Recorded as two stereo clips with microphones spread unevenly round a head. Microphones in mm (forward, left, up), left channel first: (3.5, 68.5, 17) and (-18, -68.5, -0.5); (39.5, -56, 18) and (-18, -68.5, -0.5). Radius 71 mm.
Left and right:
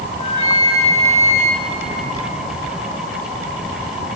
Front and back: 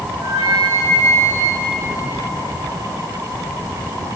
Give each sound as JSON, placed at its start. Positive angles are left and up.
{"t": 0.1, "sound": "a flute", "azimuth_deg": 125, "distance_m": 6.0}